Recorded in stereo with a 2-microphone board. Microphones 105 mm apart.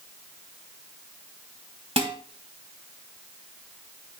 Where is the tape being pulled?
I don't hear tape being pulled.